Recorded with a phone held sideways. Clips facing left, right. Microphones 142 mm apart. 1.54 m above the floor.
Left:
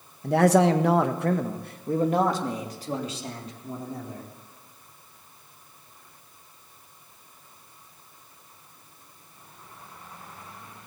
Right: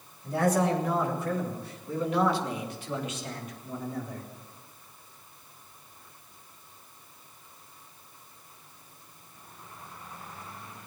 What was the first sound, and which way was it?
A man speaking, 70° left (ahead or behind).